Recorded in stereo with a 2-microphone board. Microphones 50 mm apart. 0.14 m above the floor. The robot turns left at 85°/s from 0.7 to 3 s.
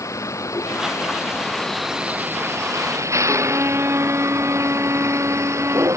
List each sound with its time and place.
0.0 s a vehicle: 85° left; by 6.0 s 75° right (ahead or behind)
3.3 s a violin: 50° right (ahead or behind)